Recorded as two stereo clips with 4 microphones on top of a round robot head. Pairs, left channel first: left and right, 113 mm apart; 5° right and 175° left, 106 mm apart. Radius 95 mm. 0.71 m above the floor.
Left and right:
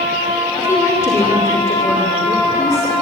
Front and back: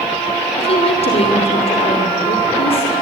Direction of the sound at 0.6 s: 20° left.